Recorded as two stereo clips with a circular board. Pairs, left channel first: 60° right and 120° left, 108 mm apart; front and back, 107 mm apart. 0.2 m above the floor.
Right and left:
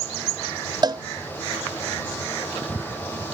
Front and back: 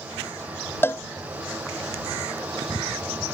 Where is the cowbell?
70° left.